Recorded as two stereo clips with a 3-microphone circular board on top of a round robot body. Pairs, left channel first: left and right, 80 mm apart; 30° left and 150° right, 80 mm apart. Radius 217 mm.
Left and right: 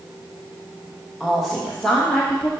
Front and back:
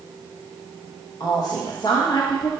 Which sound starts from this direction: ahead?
A woman speaking, at 1.2 s.